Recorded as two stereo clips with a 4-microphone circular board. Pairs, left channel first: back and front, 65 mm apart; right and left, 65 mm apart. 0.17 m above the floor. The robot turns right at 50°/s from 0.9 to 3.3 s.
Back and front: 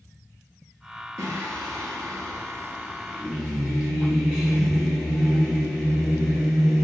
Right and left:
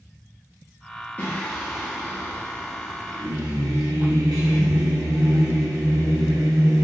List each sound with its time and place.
1.2 s singing: 25° right, 1.5 m; by 6.8 s 80° left, 1.5 m